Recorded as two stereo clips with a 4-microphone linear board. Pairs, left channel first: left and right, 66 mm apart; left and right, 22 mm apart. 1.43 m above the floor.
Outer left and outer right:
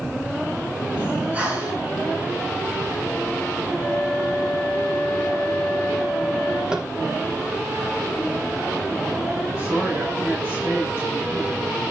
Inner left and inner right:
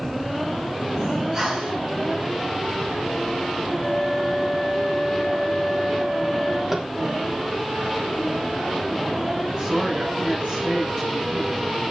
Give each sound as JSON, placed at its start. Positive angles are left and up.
{"t": 1.0, "sound": "breathing", "side_deg": -20, "distance_m": 6.0}
{"t": 3.8, "sound": "a flute", "side_deg": -15, "distance_m": 9.5}
{"t": 6.7, "sound": "tapping", "side_deg": -10, "distance_m": 2.0}
{"t": 9.6, "sound": "a woman speaking", "side_deg": -30, "distance_m": 8.5}